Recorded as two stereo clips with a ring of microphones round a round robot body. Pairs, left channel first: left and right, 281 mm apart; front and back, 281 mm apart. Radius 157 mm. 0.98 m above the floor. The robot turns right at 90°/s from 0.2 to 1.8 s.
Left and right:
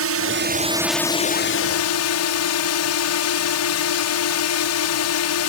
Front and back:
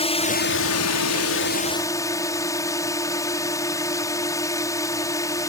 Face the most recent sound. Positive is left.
turn(degrees=80)